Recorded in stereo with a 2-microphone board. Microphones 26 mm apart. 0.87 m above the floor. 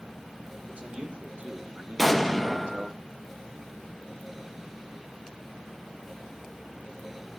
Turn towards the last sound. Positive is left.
turn(degrees=5)  # may be behind; listen again after turning